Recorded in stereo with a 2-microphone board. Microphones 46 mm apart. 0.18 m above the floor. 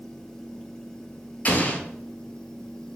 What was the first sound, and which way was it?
An explosion, 35° left (ahead or behind).